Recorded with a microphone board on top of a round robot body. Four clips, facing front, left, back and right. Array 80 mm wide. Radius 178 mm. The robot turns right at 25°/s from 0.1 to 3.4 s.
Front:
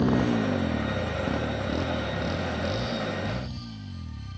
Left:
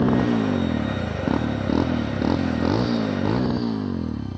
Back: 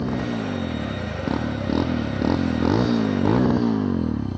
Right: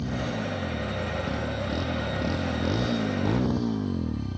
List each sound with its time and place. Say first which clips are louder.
0.0 s a motorcycle: left 11 dB, front 2 dB; 80° left; by 4.4 s 165° left